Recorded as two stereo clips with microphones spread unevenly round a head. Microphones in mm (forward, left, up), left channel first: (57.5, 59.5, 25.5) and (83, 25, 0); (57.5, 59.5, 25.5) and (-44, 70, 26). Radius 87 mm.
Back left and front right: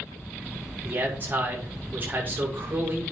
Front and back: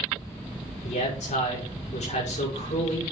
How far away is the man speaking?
About 5.5 m.